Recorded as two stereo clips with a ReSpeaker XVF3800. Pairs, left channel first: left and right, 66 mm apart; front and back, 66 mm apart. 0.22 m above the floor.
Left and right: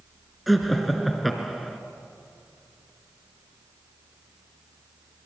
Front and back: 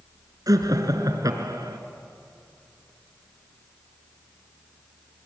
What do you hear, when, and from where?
0.5 s laughter: straight behind, 2.5 m